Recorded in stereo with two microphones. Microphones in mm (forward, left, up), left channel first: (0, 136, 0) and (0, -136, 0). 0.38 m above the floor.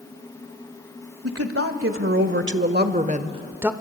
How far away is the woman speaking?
About 1.7 m.